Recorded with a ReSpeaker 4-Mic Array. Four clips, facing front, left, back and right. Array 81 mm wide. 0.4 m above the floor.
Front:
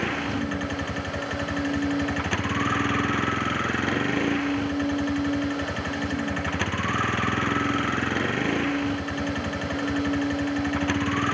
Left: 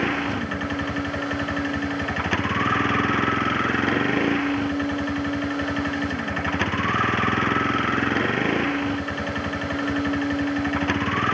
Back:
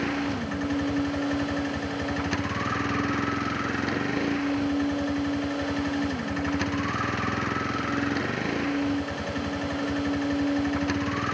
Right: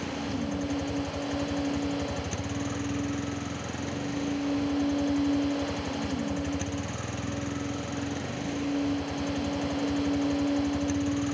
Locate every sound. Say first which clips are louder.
0.0 s a vehicle: left 7 dB, front 1 dB; 80° left